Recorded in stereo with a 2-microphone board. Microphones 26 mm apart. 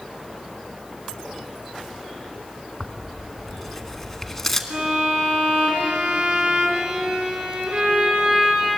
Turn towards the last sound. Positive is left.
turn(degrees=-55)  # may be behind; listen again after turning